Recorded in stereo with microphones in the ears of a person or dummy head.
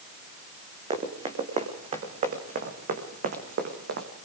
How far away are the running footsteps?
About 4 m.